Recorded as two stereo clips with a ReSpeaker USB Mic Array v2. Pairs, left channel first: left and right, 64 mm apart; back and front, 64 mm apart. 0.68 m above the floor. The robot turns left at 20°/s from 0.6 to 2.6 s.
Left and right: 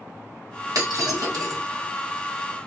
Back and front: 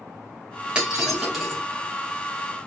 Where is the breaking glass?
75° right, 1.7 m; by 1.6 s 95° right, 1.7 m.